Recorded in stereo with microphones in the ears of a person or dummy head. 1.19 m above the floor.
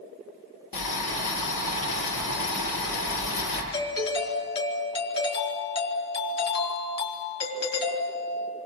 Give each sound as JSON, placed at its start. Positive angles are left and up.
{"t": 0.7, "sound": "boiling", "side_deg": 80, "distance_m": 8.5}
{"t": 3.7, "sound": "a doorbell", "side_deg": 25, "distance_m": 4.5}